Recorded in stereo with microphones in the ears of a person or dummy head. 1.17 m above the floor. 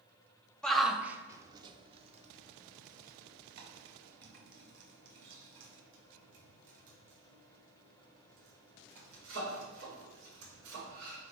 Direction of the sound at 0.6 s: 5° left (ahead or behind).